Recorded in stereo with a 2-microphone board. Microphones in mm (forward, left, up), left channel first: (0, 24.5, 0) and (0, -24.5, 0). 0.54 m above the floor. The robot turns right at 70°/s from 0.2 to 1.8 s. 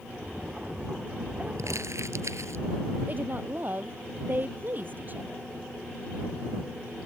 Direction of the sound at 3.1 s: 40° right (ahead or behind).